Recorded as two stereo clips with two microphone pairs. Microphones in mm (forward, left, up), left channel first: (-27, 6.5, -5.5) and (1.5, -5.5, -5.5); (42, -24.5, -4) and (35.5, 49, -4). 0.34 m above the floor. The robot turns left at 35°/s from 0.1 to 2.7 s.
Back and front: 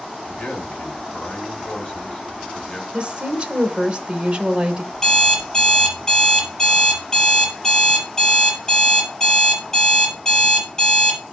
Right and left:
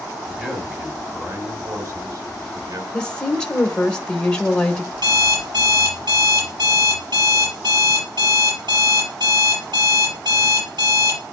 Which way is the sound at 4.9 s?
75° left.